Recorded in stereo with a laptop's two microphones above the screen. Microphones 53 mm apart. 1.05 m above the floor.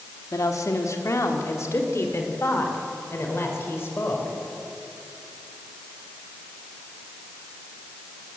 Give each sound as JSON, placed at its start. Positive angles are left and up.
{"t": 0.3, "sound": "a woman speaking", "side_deg": 75, "distance_m": 2.5}